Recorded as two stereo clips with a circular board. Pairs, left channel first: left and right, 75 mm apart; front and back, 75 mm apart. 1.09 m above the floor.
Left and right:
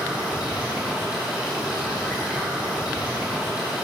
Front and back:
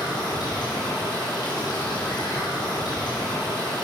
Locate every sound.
0.0 s running water: 15° right, 4 m